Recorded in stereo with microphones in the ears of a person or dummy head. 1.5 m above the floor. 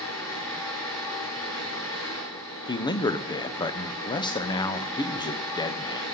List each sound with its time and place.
0.0 s a fan: 20° left (ahead or behind), 8.5 m
2.7 s a man speaking: 25° left (ahead or behind), 0.7 m